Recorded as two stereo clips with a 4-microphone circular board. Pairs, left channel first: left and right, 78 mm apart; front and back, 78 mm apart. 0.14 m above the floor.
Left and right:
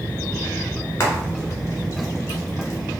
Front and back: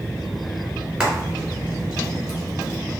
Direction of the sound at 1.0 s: 110° left.